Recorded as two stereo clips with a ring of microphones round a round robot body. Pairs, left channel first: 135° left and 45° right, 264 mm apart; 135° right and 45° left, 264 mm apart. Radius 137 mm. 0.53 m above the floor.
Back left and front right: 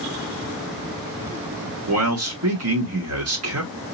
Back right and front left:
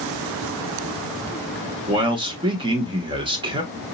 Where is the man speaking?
25° right, 1.2 m.